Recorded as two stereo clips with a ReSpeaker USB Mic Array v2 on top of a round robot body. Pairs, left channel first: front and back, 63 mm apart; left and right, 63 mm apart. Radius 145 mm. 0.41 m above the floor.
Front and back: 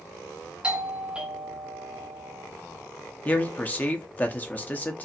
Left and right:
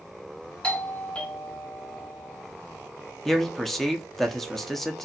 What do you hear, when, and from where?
0.6 s a doorbell: 130° left, 1.2 m
3.2 s a man speaking: 10° left, 0.9 m